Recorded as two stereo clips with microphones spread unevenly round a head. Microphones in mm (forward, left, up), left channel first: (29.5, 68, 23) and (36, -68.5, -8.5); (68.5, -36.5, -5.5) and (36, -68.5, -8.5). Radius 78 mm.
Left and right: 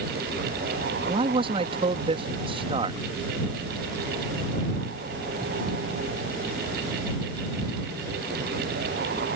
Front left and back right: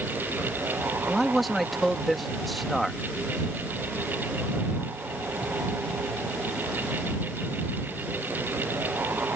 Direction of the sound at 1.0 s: 45° right.